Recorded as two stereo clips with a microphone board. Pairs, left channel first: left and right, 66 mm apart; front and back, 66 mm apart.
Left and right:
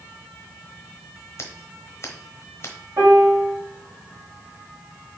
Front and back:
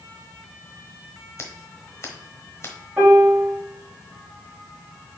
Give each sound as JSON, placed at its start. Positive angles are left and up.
{"t": 1.4, "sound": "scissors", "azimuth_deg": 45, "distance_m": 1.1}
{"t": 3.0, "sound": "a piano", "azimuth_deg": -115, "distance_m": 2.5}